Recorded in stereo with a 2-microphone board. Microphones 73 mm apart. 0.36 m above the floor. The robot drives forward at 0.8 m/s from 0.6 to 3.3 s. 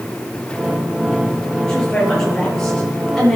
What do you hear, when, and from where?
1.7 s a woman speaking: 10° left (ahead or behind), 8 m